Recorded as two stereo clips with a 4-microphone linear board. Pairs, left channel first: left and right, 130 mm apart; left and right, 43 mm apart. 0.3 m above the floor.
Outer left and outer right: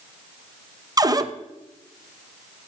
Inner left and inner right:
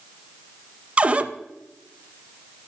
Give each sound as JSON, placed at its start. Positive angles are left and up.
{"t": 1.0, "sound": "a cupboard door", "side_deg": -30, "distance_m": 0.5}